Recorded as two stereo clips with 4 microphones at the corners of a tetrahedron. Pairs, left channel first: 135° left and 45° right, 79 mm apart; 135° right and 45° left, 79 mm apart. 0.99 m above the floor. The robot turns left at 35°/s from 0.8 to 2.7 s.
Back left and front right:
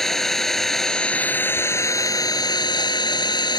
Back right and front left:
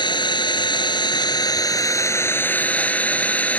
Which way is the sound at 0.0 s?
140° right.